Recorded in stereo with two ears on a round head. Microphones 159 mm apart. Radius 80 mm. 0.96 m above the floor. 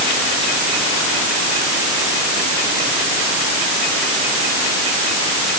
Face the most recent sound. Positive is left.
No sound to turn to.